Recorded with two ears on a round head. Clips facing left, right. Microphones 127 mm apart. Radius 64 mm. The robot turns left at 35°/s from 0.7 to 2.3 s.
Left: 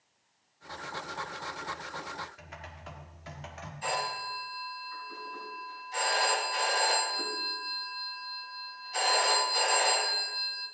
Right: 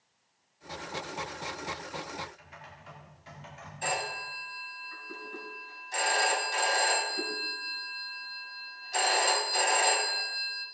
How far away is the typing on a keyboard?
About 1.5 m.